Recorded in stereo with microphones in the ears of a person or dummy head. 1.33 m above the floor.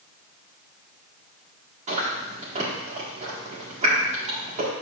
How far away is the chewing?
About 1.5 m.